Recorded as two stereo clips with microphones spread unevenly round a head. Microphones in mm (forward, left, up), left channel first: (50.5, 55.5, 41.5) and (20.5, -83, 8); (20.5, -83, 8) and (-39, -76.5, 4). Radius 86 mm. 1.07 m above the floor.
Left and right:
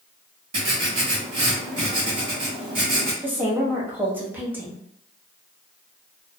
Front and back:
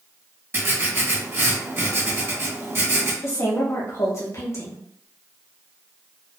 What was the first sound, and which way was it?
Writing, 145° right.